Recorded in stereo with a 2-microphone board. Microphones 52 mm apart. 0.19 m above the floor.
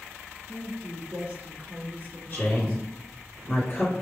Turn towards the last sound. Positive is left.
turn(degrees=30)  # may be behind; listen again after turning